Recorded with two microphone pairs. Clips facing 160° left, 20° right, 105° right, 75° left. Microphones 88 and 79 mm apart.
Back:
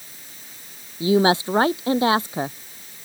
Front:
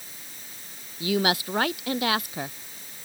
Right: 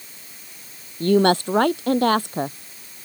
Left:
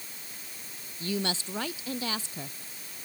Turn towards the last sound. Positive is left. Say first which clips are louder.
# back 7 dB, right 16 dB
turn(degrees=-135)